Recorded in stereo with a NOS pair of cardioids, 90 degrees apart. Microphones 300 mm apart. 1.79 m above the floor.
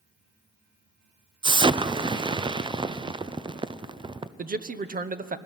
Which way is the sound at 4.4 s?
30° right.